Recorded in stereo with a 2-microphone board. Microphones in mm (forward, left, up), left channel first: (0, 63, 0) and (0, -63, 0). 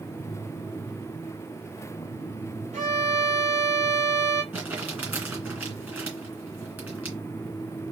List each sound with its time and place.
2.7 s a violin: 65° right (ahead or behind), 2.5 m
4.5 s crumpling: 15° right (ahead or behind), 2.5 m